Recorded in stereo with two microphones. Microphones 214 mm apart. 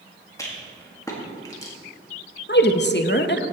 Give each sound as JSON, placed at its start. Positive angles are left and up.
{"t": 0.4, "sound": "a rattle", "side_deg": 15, "distance_m": 1.8}
{"t": 2.5, "sound": "a woman speaking", "side_deg": 55, "distance_m": 0.7}